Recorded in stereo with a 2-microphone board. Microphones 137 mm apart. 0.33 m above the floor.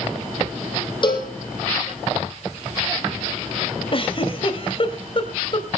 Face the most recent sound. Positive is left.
turn(degrees=45)  # may be behind; listen again after turning